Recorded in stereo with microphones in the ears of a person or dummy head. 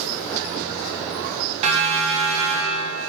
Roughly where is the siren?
Right.